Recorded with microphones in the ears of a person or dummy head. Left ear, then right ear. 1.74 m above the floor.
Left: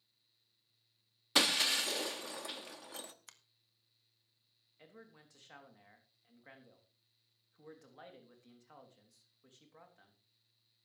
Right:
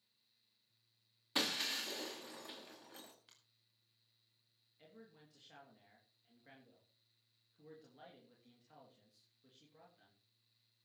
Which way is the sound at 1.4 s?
25° left (ahead or behind).